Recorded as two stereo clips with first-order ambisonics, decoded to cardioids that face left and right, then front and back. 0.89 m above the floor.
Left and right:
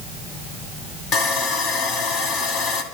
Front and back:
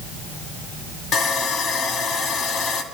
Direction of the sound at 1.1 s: 55° left.